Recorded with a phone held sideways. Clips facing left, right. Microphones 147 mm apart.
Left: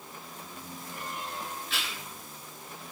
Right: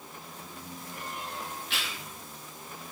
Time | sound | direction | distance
1.7 | chewing | 65° right (ahead or behind) | 3.5 m